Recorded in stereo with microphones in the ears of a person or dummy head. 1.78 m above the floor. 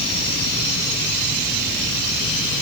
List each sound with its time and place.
Only background noise.